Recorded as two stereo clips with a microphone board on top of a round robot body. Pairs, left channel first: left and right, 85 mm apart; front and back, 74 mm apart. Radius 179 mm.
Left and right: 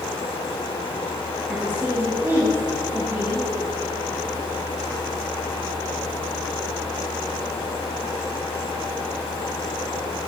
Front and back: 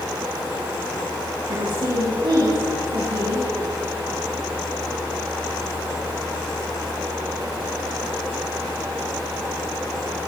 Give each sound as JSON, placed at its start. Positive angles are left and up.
{"t": 1.5, "sound": "a woman speaking", "azimuth_deg": -155, "distance_m": 6.5}